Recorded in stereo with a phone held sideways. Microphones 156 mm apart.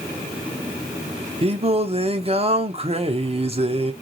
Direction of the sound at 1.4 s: 40° right (ahead or behind).